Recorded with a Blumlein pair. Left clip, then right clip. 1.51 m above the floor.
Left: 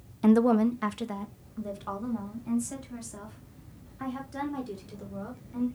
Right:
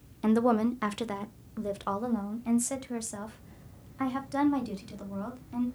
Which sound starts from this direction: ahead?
A woman speaking, at 0.2 s.